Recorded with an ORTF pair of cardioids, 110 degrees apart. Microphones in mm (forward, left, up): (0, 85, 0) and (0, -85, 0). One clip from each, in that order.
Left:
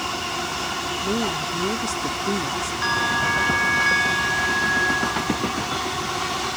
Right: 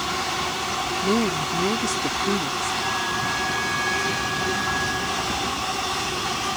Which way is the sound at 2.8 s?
55° left.